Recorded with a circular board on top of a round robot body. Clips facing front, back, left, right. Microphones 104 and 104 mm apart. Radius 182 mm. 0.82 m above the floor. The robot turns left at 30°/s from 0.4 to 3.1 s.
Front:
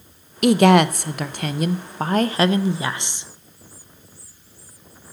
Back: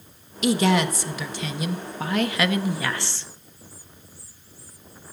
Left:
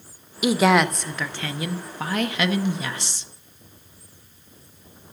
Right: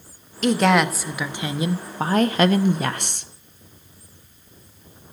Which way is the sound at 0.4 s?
10° left.